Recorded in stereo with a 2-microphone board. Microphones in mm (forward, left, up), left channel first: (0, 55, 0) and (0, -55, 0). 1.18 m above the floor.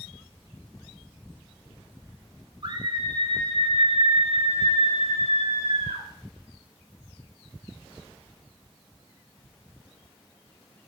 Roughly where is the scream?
Right.